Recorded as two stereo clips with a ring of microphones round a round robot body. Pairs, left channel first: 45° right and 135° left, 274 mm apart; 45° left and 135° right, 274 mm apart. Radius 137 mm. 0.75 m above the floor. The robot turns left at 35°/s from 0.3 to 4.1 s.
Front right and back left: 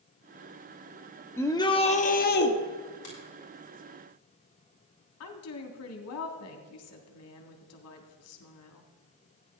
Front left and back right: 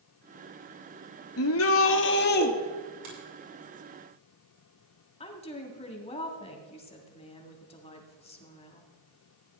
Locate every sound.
1.4 s a shout: 35° left, 1.2 m; by 2.5 s 5° right, 1.2 m
3.0 s a finger snap: 110° right, 6 m; by 3.2 s 115° right, 6 m
5.2 s a woman speaking: 20° right, 1.9 m